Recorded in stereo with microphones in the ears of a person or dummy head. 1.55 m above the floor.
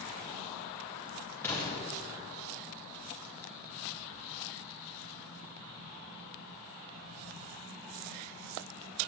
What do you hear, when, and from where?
1.4 s an explosion: 15° left (ahead or behind), 3 m